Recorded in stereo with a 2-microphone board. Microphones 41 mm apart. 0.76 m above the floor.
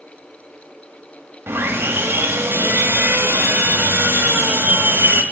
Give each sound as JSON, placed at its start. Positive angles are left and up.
{"t": 1.5, "sound": "sawing", "side_deg": -70, "distance_m": 1.5}